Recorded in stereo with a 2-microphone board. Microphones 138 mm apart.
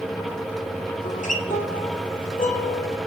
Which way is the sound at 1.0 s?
70° left (ahead or behind).